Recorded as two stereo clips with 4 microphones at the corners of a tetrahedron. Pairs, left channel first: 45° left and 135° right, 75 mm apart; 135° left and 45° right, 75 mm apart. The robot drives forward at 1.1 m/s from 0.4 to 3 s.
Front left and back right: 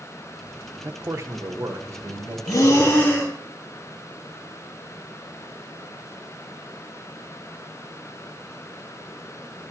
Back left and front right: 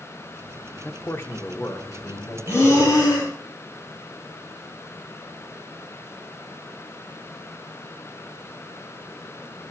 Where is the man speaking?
175° right, 0.6 m; by 2.4 s straight behind, 2 m.